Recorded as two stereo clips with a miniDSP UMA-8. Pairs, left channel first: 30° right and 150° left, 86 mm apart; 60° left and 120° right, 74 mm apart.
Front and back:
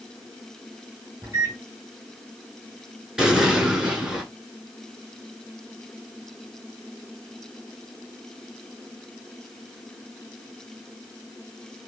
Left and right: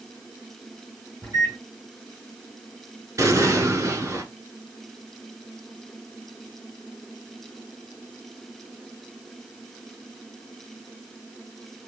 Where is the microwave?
165° right, 3 m.